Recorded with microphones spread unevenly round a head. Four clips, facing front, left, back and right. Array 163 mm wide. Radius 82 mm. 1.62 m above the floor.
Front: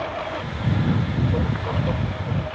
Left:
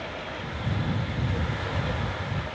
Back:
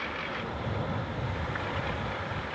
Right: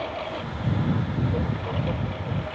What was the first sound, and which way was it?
A lawn mower, 25° right.